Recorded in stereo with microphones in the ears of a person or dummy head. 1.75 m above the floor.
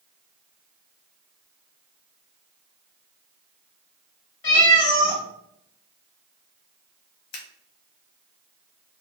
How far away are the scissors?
About 0.8 m.